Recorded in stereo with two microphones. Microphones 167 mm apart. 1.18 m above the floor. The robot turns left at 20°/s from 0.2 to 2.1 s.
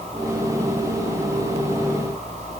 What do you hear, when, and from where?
Only background noise.